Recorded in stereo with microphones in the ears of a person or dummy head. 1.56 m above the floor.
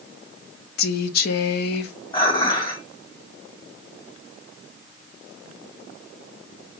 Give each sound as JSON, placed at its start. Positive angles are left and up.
{"t": 0.8, "sound": "a woman speaking", "side_deg": 65, "distance_m": 0.6}
{"t": 2.1, "sound": "dishes clattering", "side_deg": 25, "distance_m": 1.8}